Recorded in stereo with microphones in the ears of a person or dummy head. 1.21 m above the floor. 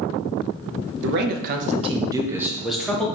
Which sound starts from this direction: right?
A man speaking, at 1.0 s.